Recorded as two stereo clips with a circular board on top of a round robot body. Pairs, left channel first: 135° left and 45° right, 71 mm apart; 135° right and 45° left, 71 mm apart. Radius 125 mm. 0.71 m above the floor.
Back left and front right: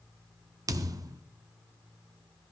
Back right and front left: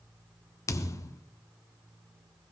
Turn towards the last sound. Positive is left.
turn(degrees=-85)